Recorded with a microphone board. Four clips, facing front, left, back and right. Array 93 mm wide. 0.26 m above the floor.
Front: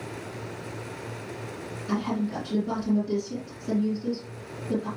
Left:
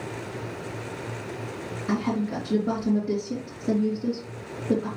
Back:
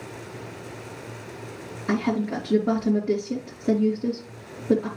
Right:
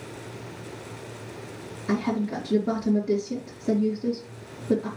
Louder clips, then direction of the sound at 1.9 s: Right 1 dB, back 4 dB; 170° left.